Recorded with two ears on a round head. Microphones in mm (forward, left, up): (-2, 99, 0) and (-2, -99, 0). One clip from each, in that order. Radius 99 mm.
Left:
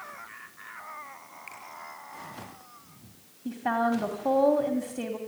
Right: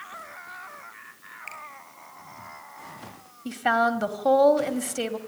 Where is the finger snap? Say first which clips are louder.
Right 6 dB; 30° right (ahead or behind), 8 m.